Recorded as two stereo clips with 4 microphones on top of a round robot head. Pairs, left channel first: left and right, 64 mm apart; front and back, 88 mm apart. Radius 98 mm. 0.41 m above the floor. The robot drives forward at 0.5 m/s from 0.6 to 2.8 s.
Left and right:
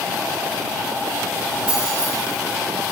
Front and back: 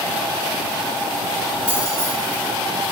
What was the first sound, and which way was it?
Keys jangling, 165° right.